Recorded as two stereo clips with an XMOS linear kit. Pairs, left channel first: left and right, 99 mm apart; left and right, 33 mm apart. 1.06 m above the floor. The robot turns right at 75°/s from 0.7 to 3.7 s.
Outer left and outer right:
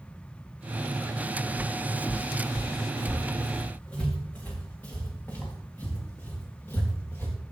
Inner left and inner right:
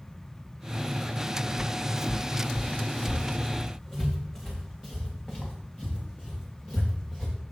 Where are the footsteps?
15° left (ahead or behind), 3.5 m; by 7.3 s 25° left (ahead or behind), 6.5 m.